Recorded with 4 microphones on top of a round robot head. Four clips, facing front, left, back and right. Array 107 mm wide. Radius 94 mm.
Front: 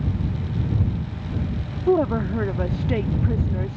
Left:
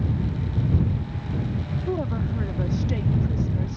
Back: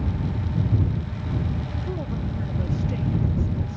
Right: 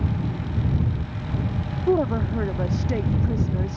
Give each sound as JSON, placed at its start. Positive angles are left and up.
{"t": 1.9, "sound": "a woman speaking", "azimuth_deg": -30}